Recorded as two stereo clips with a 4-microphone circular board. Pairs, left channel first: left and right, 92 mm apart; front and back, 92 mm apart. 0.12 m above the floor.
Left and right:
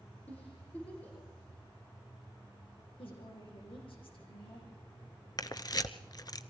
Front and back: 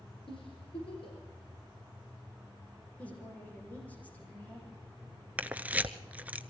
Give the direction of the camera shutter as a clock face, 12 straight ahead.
8 o'clock.